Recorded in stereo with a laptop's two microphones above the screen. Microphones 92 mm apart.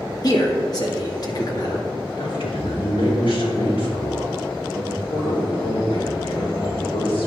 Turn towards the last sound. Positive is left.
turn(degrees=70)  # may be behind; listen again after turning